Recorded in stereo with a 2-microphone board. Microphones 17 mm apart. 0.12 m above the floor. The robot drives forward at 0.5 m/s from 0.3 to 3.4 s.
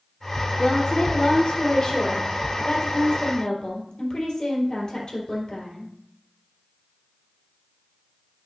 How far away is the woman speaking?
About 3 m.